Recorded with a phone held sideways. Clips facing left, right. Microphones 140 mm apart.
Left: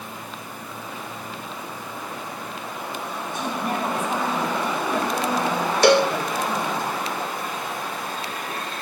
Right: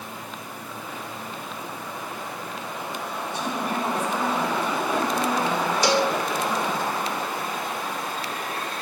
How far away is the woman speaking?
About 9.5 m.